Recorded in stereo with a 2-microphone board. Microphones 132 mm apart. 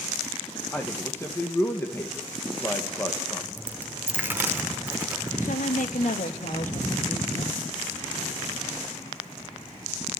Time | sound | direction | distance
0.7 | a man speaking | 20° left (ahead or behind) | 1.7 m
3.6 | a dropped coin | 15° right (ahead or behind) | 1.4 m
5.4 | a woman speaking | 70° left (ahead or behind) | 1.7 m